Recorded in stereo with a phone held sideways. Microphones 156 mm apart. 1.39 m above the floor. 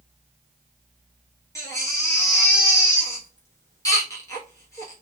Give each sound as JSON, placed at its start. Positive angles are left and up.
{"t": 1.6, "sound": "a baby crying", "side_deg": 20, "distance_m": 1.0}